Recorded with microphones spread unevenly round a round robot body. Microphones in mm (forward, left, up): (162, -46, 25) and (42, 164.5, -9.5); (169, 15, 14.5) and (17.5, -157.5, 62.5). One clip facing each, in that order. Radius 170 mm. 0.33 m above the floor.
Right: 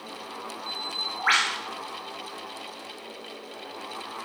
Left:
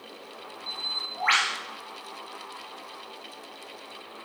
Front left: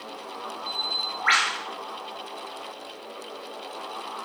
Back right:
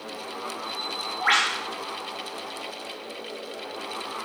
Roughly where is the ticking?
I don't hear ticking.